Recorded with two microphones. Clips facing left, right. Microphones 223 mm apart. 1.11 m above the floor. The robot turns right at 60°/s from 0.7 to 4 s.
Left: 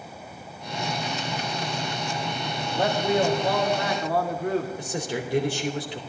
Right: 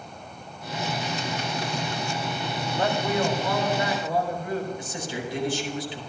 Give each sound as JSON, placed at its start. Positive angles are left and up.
{"t": 2.7, "sound": "a man speaking", "azimuth_deg": 5, "distance_m": 2.5}
{"t": 4.8, "sound": "a man speaking", "side_deg": 65, "distance_m": 3.5}